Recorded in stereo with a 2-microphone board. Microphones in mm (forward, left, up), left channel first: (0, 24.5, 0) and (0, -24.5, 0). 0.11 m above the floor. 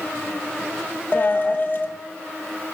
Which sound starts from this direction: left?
A dropped coin, at 1.1 s.